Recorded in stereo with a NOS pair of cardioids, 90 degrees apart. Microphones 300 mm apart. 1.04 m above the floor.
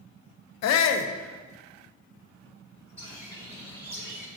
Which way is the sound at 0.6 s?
65° left.